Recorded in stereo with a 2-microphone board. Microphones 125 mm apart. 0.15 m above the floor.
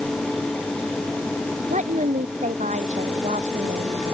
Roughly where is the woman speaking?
Right.